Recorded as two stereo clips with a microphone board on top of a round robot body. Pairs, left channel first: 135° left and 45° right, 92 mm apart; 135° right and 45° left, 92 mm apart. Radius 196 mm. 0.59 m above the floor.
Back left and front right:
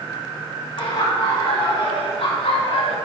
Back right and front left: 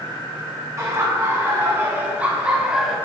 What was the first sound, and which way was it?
Laughter, 105° left.